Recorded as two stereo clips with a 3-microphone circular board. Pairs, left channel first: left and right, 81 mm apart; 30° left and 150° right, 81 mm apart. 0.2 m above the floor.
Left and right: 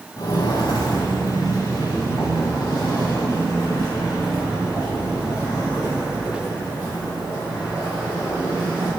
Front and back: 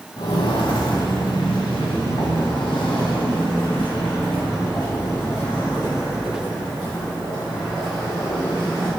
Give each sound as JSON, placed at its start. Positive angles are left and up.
{"t": 0.2, "sound": "footsteps", "azimuth_deg": 55, "distance_m": 1.2}